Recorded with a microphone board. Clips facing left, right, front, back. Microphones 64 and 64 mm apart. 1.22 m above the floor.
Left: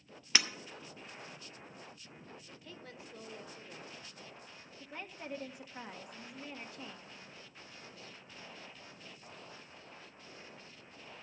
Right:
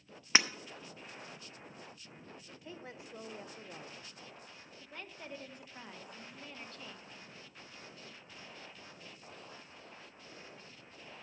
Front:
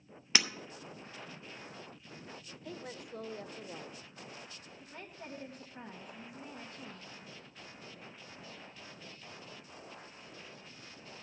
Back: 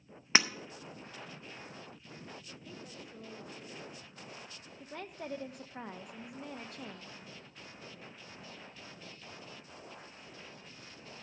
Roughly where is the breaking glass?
Behind right.